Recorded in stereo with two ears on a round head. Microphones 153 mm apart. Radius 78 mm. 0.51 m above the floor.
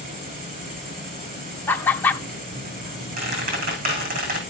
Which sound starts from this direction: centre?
Laughter, at 1.7 s.